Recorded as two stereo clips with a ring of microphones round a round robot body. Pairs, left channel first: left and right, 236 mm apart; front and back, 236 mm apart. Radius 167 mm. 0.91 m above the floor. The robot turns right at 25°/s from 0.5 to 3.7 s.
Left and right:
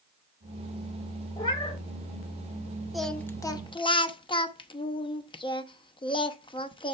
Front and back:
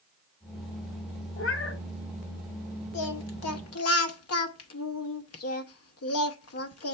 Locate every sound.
1.4 s a cat meowing: 20° left, 1.1 m; by 1.8 s 30° left, 1.1 m
2.9 s singing: straight ahead, 0.9 m; by 6.9 s 20° left, 0.9 m